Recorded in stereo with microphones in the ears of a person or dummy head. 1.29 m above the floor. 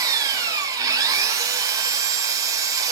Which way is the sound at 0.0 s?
15° right (ahead or behind).